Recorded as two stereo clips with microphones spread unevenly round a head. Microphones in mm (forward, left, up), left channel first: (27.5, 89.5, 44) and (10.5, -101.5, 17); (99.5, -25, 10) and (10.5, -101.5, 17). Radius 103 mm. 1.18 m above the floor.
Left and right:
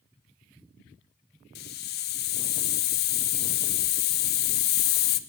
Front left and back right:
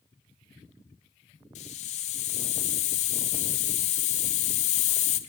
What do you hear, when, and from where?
1.6 s a hiss: 65° left, 0.5 m